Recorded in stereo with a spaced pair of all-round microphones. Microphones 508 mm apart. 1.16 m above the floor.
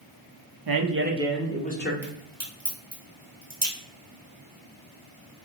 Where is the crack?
40° right (ahead or behind), 1.0 m.